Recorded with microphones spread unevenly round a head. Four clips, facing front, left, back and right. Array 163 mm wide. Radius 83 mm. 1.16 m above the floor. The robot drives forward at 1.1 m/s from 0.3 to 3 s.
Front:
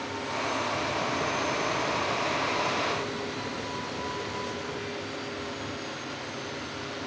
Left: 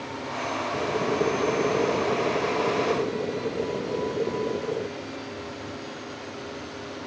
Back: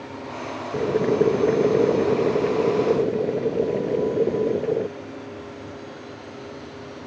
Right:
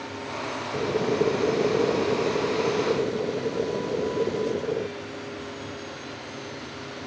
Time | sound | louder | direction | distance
0.7 | boiling | right 3 dB, back 9 dB | 170° right | ?